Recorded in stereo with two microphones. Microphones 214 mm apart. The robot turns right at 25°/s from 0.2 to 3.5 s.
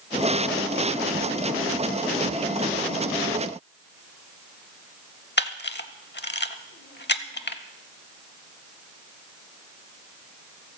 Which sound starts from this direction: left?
A camera shutter, at 5.4 s.